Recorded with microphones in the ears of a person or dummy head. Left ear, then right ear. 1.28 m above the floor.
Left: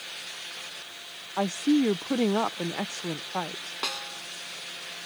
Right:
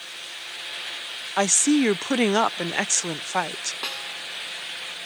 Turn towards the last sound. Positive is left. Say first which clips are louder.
# right 2 dB
turn(degrees=0)  # may be behind; listen again after turning